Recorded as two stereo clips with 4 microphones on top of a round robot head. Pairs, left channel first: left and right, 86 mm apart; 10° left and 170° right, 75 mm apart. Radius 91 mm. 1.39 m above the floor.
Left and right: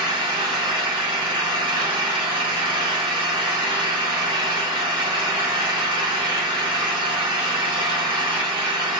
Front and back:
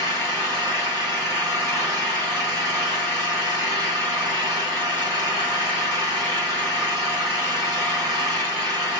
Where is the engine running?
120° right, 2.5 m.